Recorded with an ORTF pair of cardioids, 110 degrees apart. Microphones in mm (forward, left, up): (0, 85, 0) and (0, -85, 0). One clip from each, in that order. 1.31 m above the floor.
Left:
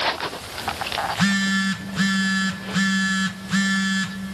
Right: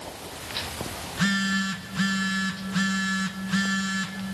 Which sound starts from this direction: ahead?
A phone buzzing, at 1.0 s.